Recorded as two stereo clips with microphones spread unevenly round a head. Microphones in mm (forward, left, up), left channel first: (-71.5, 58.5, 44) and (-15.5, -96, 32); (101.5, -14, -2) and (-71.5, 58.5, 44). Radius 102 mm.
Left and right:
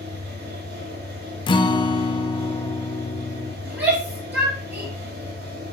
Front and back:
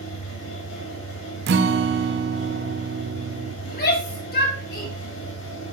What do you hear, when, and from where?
0.0 s a fan: 30° right, 5 m
1.5 s a guitar: 165° left, 0.7 m
3.6 s a shout: 15° left, 5 m